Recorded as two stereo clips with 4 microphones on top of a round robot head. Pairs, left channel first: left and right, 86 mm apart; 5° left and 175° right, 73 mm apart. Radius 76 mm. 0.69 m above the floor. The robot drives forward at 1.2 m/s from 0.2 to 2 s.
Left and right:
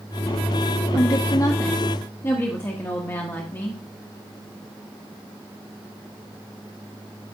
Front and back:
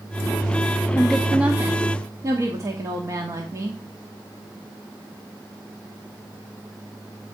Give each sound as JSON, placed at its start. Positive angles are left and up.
{"t": 0.9, "sound": "a woman speaking", "azimuth_deg": 70, "distance_m": 1.0}